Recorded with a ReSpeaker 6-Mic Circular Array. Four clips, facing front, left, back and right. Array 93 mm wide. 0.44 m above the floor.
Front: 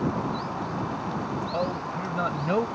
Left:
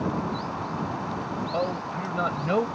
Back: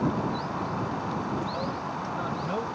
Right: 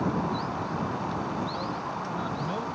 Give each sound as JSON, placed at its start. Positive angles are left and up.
{"t": 1.5, "sound": "a man speaking", "azimuth_deg": 55}